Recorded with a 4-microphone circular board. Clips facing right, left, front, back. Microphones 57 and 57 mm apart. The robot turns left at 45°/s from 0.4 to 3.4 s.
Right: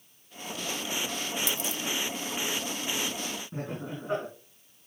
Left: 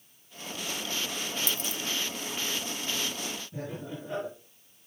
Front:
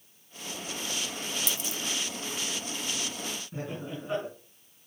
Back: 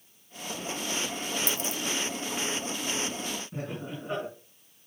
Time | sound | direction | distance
1.5 | a dropped coin | 140° left | 0.8 m
3.5 | laughter | 95° right | 5.5 m